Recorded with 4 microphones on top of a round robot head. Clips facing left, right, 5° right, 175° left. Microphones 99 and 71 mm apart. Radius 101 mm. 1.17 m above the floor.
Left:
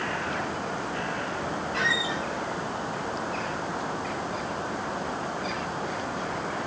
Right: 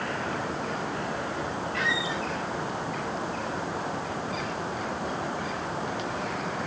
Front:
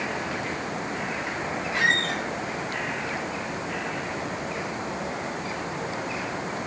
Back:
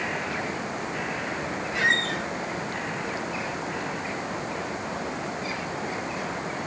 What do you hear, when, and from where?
1.7 s a squeak: 25° left, 1.2 m